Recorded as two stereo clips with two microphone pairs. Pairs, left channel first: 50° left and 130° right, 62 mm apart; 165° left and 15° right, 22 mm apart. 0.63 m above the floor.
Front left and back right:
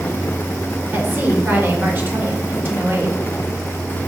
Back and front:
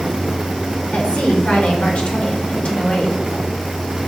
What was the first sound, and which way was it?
A woman speaking, 175° left.